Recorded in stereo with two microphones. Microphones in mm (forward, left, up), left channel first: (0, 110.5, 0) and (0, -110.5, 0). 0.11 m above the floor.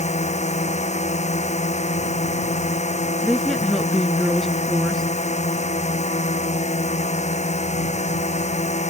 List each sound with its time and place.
0.0 s a drone: 30° left (ahead or behind)
3.2 s a woman speaking: centre (ahead or behind)